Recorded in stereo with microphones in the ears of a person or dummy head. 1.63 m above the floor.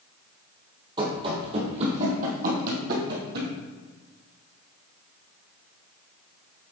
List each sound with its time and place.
1.0 s running footsteps: 20° right (ahead or behind), 2.5 m; by 3.5 s 50° right (ahead or behind), 3.5 m